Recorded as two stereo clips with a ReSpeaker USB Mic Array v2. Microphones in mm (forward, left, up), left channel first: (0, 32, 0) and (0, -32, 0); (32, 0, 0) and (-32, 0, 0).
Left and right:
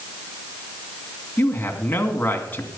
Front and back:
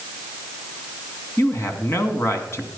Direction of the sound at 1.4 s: 35° left.